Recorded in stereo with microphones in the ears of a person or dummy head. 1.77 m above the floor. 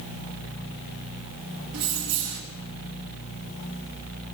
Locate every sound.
1.7 s keys jangling: 65° right (ahead or behind), 2 m